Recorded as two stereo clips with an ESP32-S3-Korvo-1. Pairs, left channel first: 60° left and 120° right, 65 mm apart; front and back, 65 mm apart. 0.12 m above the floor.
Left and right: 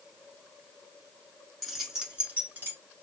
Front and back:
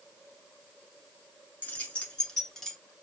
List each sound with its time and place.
1.6 s keys jangling: 30° right, 1.2 m; by 2.8 s 85° right, 1.3 m